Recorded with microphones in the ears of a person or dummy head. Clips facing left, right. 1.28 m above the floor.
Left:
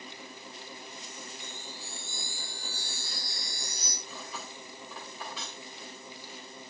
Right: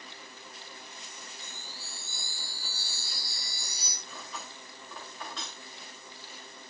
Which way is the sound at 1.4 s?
5° right (ahead or behind).